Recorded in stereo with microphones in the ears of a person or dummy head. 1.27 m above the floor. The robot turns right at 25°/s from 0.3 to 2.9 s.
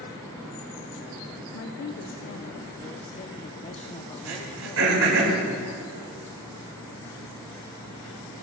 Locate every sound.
1.5 s a woman speaking: 110° left, 0.6 m; by 5.2 s 145° left, 0.6 m
4.2 s throat clearing: 85° right, 5.5 m